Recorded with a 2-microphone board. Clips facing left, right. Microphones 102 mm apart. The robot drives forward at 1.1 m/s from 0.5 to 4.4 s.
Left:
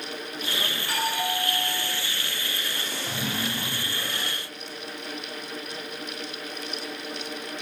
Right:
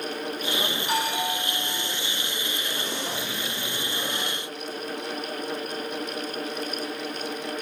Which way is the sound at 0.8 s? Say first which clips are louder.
Even; 15° right (ahead or behind).